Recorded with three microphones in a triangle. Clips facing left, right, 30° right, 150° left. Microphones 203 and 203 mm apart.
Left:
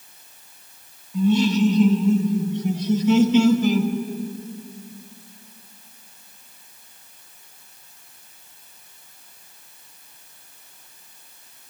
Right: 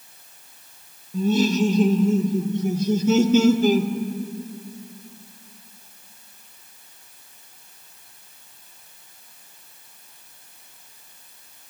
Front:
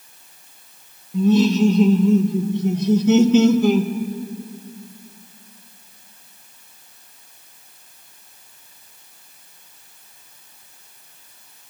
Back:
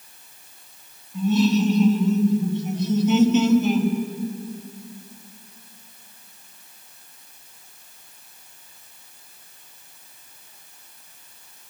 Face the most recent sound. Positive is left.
turn(degrees=-40)